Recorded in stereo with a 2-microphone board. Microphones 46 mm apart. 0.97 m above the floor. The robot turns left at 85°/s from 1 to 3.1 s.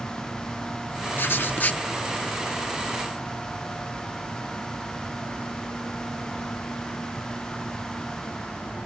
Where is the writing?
95° left, 0.6 m; by 1.8 s 40° left, 0.6 m.